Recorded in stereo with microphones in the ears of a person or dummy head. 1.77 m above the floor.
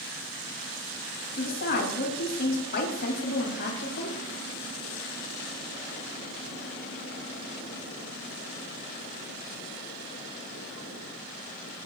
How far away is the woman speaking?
About 3 m.